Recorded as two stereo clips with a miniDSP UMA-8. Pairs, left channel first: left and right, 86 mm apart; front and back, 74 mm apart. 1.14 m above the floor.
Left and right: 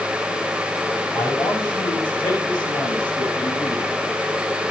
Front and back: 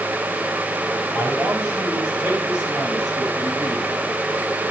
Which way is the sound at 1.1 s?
110° left.